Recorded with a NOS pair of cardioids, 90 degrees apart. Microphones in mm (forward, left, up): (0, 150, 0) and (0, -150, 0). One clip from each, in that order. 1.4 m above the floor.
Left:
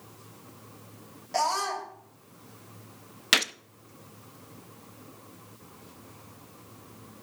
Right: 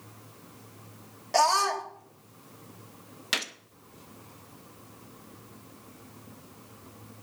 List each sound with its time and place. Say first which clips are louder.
1.3 s a scream: right 4 dB; 40° right, 3.5 m
3.3 s a gunshot: left 6 dB; 25° left, 0.7 m